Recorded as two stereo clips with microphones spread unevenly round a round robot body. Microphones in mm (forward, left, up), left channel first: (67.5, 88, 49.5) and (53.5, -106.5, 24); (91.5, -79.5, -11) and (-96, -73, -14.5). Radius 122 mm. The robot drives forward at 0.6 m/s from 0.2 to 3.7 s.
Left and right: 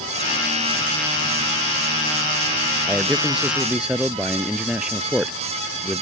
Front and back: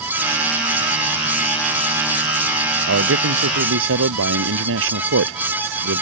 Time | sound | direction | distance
2.9 | a man speaking | straight behind | ?